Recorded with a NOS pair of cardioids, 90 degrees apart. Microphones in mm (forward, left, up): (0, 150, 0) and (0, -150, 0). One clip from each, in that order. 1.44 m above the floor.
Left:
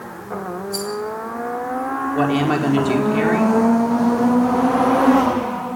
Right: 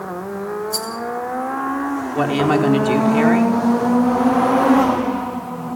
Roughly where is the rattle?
Ahead right.